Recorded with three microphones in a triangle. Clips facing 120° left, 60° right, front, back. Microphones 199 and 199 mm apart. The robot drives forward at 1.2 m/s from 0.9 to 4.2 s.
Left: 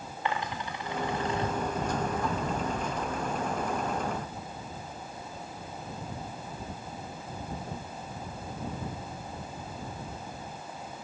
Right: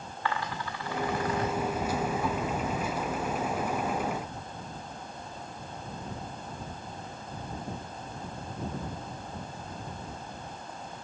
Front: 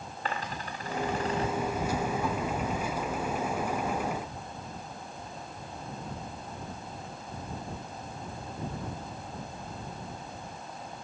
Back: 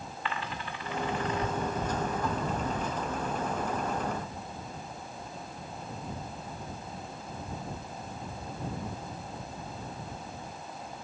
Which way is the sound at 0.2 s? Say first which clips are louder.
Even, front 2 dB; 50° left.